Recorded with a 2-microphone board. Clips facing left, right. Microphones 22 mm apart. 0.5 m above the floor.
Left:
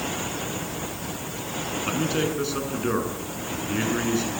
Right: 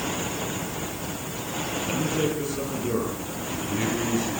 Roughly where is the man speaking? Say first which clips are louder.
Left 1 dB; left.